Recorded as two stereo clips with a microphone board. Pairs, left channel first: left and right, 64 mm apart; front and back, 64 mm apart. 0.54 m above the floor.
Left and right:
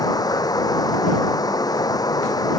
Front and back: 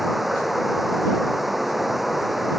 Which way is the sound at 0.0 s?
95° left.